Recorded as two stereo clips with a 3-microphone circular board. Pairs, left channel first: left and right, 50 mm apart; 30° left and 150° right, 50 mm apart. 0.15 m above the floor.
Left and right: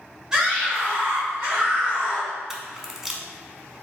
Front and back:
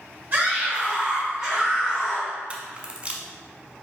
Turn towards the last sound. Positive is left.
turn(degrees=-165)